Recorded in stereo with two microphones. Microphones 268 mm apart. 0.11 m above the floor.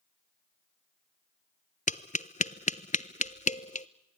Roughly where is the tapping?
Left.